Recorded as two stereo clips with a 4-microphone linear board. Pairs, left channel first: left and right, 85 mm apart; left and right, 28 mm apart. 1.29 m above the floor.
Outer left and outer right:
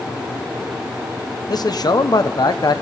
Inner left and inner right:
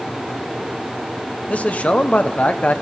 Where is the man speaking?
50° left (ahead or behind), 0.9 m.